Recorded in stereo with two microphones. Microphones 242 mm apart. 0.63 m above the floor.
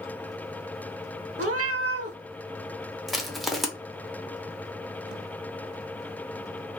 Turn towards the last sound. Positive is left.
turn(degrees=0)  # may be behind; listen again after turning